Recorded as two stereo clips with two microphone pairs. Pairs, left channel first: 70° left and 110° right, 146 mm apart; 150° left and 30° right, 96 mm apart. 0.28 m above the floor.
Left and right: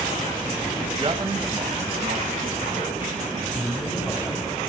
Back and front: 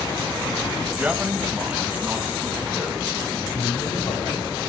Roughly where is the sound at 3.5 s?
Behind left.